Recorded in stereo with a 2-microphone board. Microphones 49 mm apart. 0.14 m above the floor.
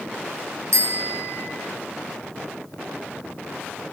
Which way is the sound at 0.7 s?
80° right.